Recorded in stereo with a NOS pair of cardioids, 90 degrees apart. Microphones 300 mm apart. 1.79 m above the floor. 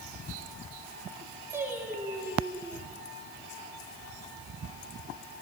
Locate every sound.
1.5 s singing: 10° right, 6.5 m